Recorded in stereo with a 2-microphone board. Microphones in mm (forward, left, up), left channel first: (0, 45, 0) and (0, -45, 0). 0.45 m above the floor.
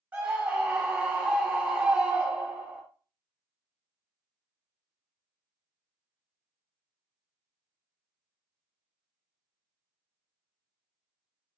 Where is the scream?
15° right (ahead or behind), 1.2 m.